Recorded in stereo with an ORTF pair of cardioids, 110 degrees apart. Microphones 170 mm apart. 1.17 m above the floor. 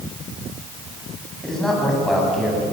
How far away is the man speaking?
About 9.5 m.